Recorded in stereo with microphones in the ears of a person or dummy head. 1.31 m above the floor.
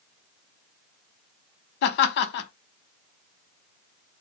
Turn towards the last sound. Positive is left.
turn(degrees=60)  # may be behind; listen again after turning